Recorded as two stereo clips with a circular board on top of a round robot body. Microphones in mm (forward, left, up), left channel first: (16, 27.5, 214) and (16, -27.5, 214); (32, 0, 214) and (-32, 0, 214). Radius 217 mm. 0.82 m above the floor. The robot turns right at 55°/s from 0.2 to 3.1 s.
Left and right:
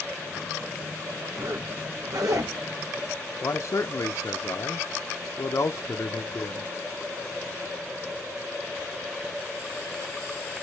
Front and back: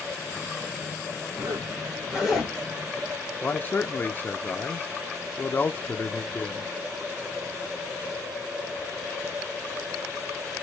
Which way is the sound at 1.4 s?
145° right.